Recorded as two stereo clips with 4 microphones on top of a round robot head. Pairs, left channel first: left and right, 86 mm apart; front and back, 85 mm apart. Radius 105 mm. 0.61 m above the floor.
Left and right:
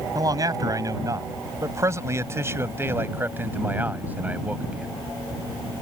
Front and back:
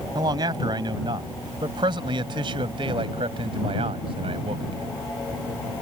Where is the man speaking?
135° right; by 4.9 s 165° right.